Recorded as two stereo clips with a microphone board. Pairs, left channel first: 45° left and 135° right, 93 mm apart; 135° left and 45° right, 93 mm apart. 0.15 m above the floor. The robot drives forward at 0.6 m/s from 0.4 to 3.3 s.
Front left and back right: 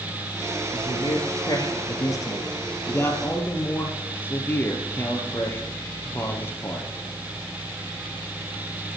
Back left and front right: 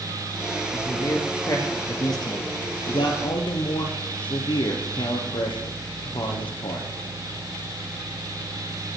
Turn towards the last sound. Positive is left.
turn(degrees=110)